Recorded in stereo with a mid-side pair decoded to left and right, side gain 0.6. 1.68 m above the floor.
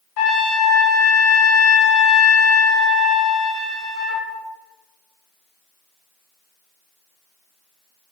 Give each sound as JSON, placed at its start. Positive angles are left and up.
{"t": 0.2, "sound": "a trumpet", "azimuth_deg": 65, "distance_m": 0.6}